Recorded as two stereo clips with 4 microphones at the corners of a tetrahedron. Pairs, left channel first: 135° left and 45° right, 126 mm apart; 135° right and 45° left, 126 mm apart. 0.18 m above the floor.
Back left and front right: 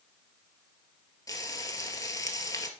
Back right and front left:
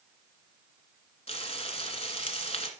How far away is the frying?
About 1.0 m.